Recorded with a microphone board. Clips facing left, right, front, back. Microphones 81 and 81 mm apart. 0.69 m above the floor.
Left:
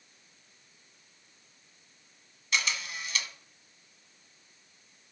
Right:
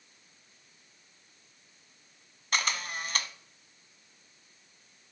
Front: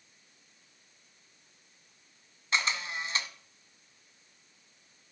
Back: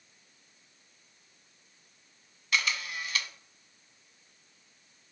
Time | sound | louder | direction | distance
2.5 | a camera shutter | right 1 dB, even | 60° right | 0.8 m